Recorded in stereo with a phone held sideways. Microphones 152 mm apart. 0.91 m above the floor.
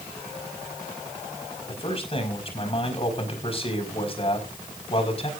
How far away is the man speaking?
About 5.5 m.